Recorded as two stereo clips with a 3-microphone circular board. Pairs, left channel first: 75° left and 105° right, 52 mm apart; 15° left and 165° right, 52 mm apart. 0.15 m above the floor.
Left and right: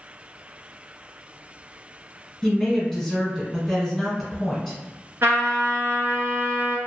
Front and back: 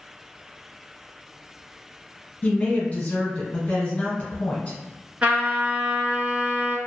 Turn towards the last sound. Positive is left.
turn(degrees=-110)